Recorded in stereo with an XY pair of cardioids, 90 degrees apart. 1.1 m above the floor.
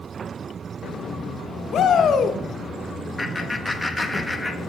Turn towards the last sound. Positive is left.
turn(degrees=10)